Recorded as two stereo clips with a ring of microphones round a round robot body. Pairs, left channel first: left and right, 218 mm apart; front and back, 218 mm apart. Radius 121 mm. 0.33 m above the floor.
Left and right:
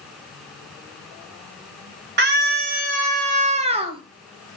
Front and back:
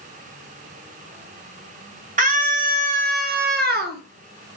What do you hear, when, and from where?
2.2 s a scream: 125° right, 3 m; by 4.0 s 150° right, 2 m